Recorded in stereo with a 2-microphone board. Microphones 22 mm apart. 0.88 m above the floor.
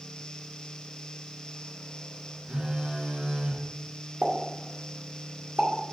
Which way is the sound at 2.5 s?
85° right.